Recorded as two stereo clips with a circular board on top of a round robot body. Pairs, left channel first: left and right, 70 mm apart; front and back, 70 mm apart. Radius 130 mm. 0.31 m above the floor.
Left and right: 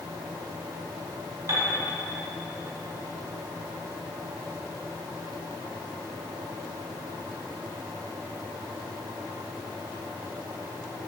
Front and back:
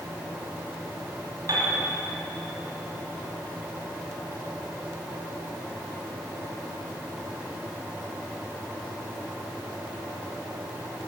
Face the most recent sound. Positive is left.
turn(degrees=-135)